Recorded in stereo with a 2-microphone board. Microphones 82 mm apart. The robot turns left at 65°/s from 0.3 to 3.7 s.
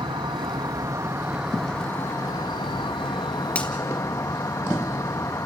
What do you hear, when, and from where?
0.0 s an insect: 100° right, 0.9 m; by 5.5 s 40° left, 0.9 m
3.5 s a finger snap: 15° left (ahead or behind), 1.9 m; by 3.7 s 10° left (ahead or behind), 1.9 m